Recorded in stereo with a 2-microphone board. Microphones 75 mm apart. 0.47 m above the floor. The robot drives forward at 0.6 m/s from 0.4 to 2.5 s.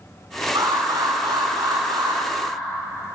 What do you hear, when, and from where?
0.6 s an alarm: 65° right (ahead or behind), 7 m; by 2.2 s 70° right (ahead or behind), 6.5 m